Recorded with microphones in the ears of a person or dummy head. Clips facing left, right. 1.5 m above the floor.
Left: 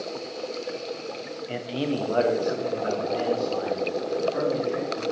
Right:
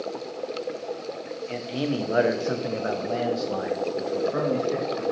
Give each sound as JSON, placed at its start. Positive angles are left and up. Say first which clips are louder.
{"t": 1.5, "sound": "a man speaking", "louder": "even", "side_deg": 15, "distance_m": 0.7}